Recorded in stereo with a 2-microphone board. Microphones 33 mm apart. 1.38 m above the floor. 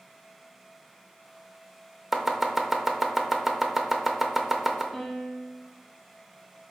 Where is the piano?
5° right (ahead or behind), 1.0 m.